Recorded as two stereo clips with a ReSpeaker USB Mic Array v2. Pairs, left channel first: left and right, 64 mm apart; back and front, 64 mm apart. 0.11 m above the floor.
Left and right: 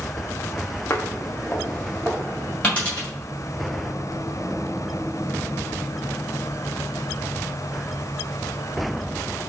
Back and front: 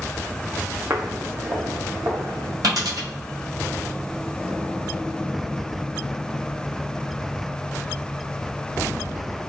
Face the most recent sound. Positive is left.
turn(degrees=20)